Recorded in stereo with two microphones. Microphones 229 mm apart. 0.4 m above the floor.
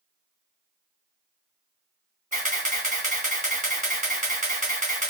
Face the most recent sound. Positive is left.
turn(degrees=-35)  # may be behind; listen again after turning